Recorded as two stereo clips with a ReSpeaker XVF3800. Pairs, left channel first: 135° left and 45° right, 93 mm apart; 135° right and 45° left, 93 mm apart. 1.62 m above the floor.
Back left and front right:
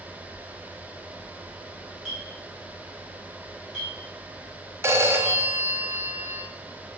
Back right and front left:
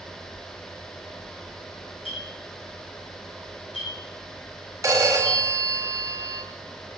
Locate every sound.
2.0 s a clink: 140° right, 4 m
4.8 s a phone ringing: 5° left, 1.3 m